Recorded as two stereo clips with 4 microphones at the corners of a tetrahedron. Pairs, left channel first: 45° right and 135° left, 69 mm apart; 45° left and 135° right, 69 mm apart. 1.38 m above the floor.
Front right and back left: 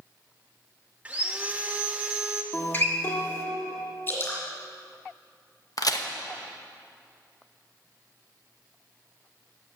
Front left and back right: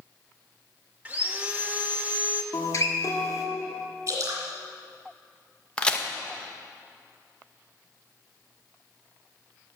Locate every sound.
1.1 s sawing: 170° right, 0.8 m
2.5 s a guitar: 10° left, 1.5 m
4.1 s dripping: 95° right, 3 m
5.8 s a crack: 30° right, 0.8 m